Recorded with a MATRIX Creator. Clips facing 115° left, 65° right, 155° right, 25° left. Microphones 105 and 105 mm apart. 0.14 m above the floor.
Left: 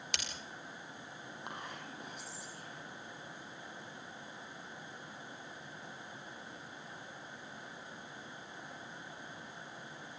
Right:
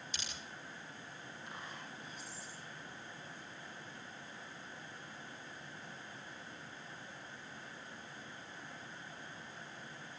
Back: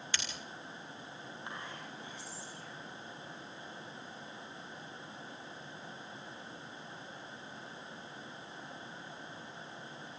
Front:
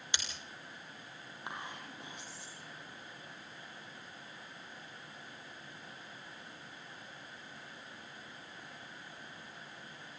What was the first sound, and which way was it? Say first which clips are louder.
Breaking glass: left 6 dB, even; 95° left.